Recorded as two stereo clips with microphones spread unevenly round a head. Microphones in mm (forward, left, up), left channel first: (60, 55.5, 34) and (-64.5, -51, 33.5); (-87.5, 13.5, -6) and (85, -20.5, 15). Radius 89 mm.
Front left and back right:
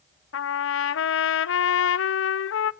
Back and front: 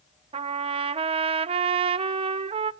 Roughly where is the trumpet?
Ahead left.